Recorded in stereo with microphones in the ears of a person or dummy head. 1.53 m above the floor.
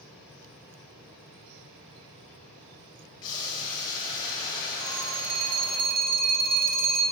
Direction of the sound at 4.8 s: 70° right (ahead or behind).